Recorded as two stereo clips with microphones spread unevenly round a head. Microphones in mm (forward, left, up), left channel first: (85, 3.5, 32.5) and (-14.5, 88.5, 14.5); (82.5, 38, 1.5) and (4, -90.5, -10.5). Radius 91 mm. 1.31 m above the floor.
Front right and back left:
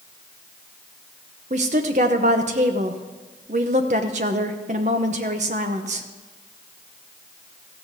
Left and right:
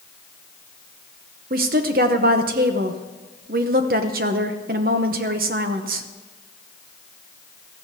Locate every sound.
1.5 s a woman speaking: 170° right, 0.6 m